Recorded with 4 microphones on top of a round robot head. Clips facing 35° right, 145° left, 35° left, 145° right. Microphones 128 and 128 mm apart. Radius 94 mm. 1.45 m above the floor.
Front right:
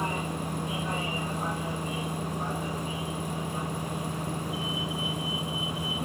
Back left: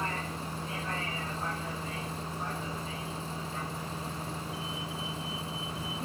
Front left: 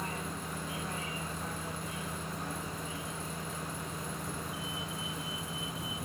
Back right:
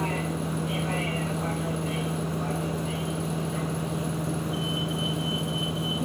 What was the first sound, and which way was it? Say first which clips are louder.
A vehicle: front right 4 dB, back right 10 dB; 115° right.